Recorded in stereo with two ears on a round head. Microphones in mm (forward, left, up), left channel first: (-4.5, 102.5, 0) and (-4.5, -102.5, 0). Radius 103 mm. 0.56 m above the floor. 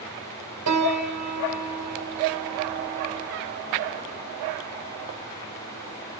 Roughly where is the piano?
Right.